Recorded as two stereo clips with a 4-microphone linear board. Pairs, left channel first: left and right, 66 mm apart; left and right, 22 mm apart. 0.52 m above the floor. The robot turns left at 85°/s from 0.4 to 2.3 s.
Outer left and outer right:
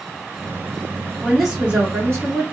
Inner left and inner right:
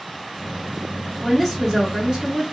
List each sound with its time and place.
1.2 s a woman speaking: 10° left, 1.6 m; by 2.4 s 85° right, 1.6 m